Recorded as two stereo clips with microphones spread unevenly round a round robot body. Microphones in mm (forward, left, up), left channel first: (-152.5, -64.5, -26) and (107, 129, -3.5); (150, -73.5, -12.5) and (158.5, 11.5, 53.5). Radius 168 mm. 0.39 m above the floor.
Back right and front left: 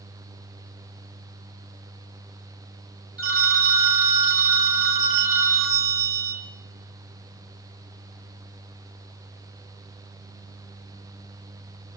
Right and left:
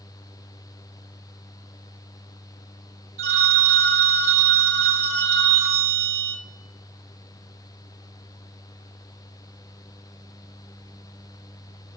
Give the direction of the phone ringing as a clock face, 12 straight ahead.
9 o'clock.